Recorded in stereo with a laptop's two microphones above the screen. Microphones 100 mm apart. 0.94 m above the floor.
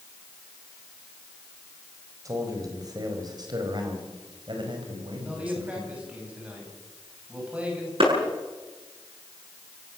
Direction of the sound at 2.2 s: 35° right (ahead or behind).